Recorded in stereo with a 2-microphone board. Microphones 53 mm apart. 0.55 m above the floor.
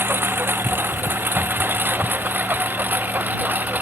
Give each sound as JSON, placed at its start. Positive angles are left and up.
{"t": 0.0, "sound": "a lawn mower", "side_deg": -40}